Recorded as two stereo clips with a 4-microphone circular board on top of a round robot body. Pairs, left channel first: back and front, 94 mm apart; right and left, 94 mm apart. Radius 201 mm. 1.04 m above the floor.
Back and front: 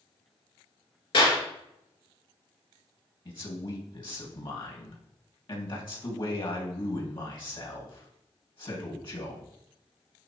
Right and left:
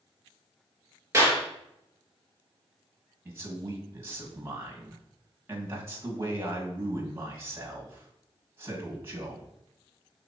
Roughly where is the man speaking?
Behind left.